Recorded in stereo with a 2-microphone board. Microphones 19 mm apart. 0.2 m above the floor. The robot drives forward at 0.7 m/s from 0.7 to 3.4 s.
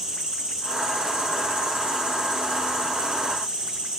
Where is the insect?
60° right (ahead or behind), 3 m.